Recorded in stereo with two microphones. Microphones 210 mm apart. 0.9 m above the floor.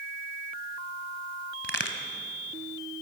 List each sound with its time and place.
1.6 s a crack: 75° left (ahead or behind), 2.0 m